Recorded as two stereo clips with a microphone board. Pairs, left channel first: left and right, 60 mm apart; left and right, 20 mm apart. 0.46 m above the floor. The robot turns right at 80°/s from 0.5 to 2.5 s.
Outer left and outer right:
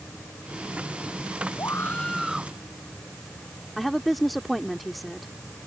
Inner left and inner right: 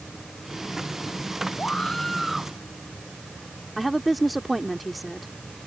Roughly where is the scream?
Behind left.